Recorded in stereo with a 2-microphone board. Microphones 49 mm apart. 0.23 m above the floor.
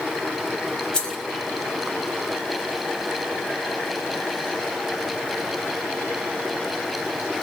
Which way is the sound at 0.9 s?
20° left (ahead or behind).